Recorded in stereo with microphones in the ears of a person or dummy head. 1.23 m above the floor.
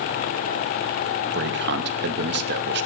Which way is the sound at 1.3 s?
65° right (ahead or behind).